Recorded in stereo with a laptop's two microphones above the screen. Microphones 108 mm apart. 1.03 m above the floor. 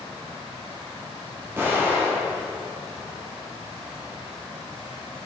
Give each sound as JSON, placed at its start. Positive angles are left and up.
{"t": 1.6, "sound": "an explosion", "side_deg": -20, "distance_m": 2.5}